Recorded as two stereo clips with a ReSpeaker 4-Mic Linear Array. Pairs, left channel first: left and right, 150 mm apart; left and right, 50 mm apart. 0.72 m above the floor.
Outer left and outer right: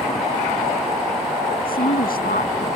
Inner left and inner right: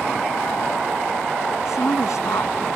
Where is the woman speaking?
80° left.